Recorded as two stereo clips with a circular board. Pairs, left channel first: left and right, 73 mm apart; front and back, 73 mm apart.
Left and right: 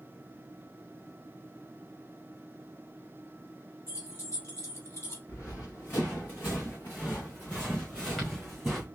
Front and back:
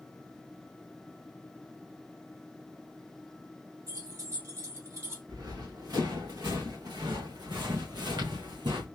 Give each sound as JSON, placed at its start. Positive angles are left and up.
{"t": 3.9, "sound": "keys jangling", "azimuth_deg": 135, "distance_m": 2.5}
{"t": 5.3, "sound": "running footsteps", "azimuth_deg": 145, "distance_m": 3.0}